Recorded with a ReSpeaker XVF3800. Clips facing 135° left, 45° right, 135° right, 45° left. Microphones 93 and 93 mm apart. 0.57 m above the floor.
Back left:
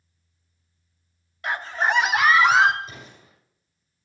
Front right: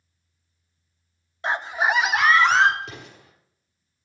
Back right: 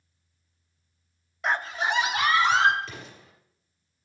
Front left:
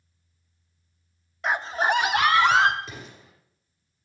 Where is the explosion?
30° right, 5 m.